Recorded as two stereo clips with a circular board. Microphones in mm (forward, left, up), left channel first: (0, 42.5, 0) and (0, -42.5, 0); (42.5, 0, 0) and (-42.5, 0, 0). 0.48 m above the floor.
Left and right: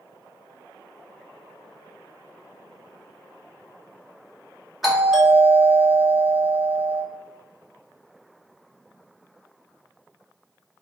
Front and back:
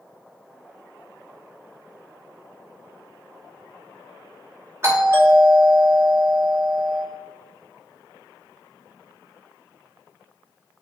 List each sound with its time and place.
4.8 s a doorbell: 175° right, 1.2 m